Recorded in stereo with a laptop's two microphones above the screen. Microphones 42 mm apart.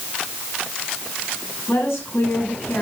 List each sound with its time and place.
1.7 s a woman speaking: 80° left, 6.5 m